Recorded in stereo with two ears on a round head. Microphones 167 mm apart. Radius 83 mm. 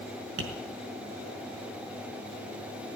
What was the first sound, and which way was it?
Tapping, 70° right (ahead or behind).